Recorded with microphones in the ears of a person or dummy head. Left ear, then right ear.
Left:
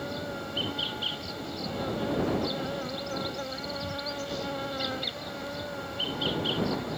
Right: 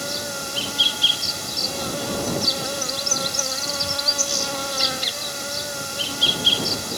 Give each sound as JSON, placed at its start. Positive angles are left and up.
{"t": 0.0, "sound": "an insect", "side_deg": -85}